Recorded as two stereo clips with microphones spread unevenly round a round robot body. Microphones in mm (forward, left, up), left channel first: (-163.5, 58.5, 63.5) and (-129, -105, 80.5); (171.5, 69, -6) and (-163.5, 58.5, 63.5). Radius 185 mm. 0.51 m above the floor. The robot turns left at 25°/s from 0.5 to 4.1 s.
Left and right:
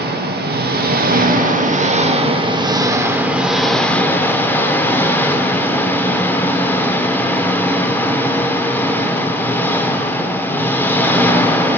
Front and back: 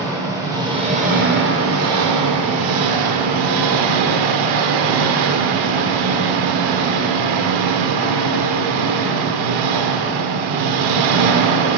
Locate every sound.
0.0 s an engine running: 90° right, 1.2 m; by 11.8 s straight behind, 1.2 m